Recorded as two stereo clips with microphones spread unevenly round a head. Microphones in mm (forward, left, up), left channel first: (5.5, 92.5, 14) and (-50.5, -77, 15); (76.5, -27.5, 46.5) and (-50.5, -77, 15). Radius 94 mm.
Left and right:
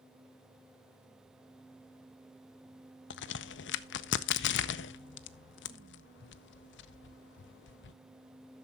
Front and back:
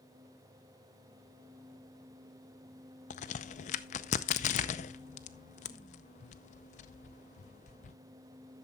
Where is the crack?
65° left, 0.5 m.